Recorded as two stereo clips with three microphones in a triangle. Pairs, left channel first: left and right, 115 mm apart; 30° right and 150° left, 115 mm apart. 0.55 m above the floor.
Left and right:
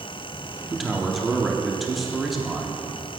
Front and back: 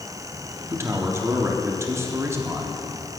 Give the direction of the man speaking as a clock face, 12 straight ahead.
6 o'clock.